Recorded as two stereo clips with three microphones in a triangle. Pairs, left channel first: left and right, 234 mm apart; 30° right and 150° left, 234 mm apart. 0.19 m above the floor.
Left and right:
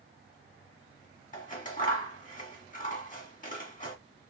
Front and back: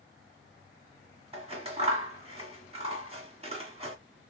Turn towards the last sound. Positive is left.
turn(degrees=105)